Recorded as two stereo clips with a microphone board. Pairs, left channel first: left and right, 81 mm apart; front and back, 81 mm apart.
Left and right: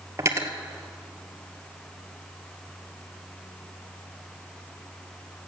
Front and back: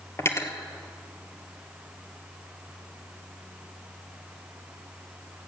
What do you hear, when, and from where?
0.2 s cutlery clinking: 45° right, 1.3 m